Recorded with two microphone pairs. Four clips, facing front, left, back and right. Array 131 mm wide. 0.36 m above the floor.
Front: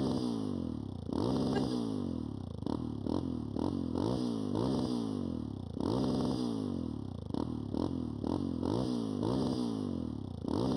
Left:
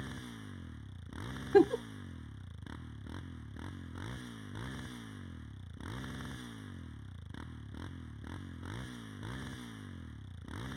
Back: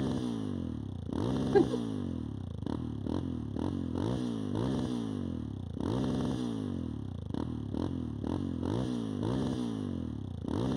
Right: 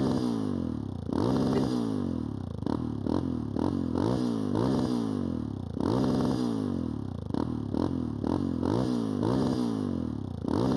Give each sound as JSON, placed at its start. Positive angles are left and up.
{"t": 0.0, "sound": "a motorcycle", "azimuth_deg": -80}
{"t": 1.5, "sound": "a giggle", "azimuth_deg": 125}